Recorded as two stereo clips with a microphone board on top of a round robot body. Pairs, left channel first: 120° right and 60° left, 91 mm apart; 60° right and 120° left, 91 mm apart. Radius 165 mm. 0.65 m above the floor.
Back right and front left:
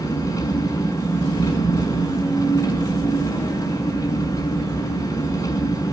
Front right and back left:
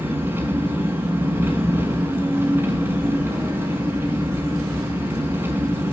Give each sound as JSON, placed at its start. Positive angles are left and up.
{"t": 0.0, "sound": "an engine running", "azimuth_deg": -170, "distance_m": 6.5}